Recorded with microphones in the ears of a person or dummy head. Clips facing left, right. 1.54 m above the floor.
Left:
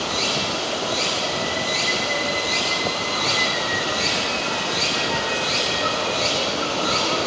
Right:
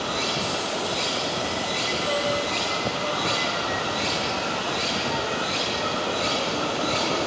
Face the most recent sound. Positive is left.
turn(degrees=-20)  # may be behind; listen again after turning